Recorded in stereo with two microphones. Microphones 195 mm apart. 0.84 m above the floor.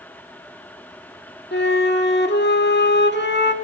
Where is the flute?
65° left (ahead or behind), 1.4 m.